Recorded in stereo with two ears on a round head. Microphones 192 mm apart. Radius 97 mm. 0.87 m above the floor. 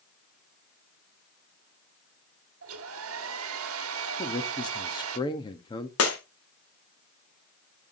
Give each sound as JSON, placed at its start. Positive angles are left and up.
{"t": 2.6, "sound": "a hair dryer", "side_deg": -75, "distance_m": 1.2}
{"t": 4.2, "sound": "a man speaking", "side_deg": 20, "distance_m": 1.3}
{"t": 6.0, "sound": "breaking glass", "side_deg": 70, "distance_m": 2.5}